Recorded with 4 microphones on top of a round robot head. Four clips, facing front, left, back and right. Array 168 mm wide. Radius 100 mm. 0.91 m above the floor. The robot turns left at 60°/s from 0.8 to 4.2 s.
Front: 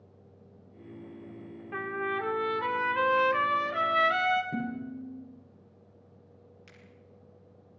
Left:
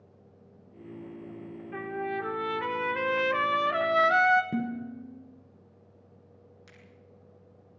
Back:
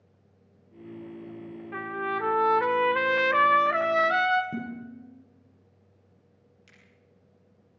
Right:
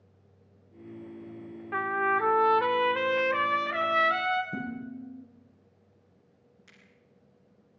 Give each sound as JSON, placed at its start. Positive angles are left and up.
{"t": 1.7, "sound": "a trumpet", "azimuth_deg": -90, "distance_m": 1.6}
{"t": 4.5, "sound": "dishes clattering", "azimuth_deg": 100, "distance_m": 8.5}
{"t": 6.7, "sound": "a finger snap", "azimuth_deg": 60, "distance_m": 7.0}